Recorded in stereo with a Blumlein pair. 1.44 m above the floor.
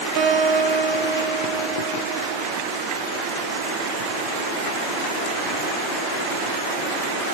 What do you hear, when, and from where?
0.2 s a guitar: 40° right, 0.6 m